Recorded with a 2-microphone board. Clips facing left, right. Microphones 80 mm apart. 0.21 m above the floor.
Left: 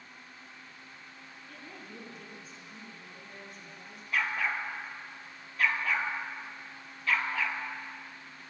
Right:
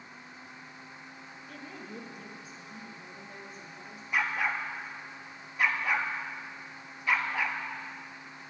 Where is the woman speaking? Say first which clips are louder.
Right 4 dB; centre (ahead or behind), 2 m; by 4.0 s 5° right (ahead or behind), 5.5 m.